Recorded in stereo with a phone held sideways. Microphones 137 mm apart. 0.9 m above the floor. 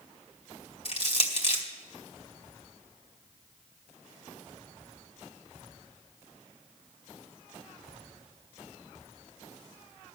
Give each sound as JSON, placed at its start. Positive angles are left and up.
{"t": 0.8, "sound": "crushing", "side_deg": 45, "distance_m": 2.0}